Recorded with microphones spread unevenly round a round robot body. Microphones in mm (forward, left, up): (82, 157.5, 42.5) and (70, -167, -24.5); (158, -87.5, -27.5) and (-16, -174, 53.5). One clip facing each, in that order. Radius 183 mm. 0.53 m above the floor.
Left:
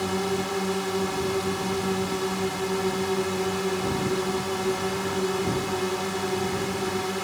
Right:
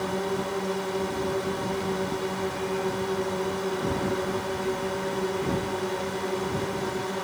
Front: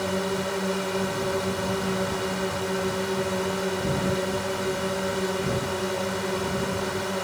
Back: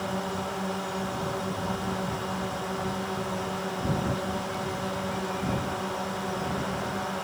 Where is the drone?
55° left.